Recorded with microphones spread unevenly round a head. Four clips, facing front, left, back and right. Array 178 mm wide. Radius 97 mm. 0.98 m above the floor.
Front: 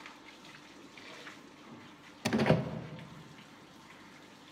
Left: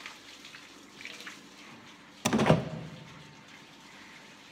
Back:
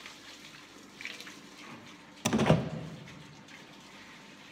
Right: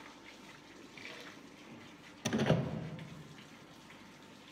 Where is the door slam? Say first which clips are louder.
Left 7 dB, back 2 dB; 75° left, 0.6 m.